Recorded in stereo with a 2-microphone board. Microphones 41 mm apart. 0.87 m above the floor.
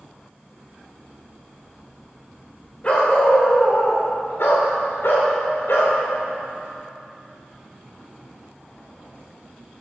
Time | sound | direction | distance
2.8 | a dog barking | 30° left (ahead or behind) | 1.3 m